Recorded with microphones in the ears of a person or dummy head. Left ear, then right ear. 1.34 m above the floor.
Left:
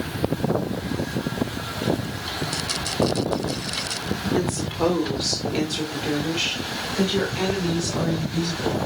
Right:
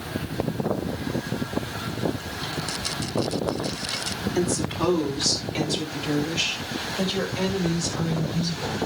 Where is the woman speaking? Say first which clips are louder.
Even; 15° right (ahead or behind), 3.5 m; by 8.8 s 15° left (ahead or behind), 6 m.